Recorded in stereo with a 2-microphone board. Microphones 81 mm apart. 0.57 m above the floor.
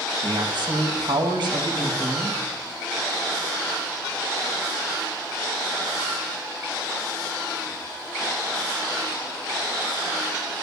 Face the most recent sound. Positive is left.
turn(degrees=-70)  # may be behind; listen again after turning